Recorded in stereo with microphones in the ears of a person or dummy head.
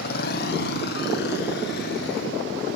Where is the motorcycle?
60° left (ahead or behind).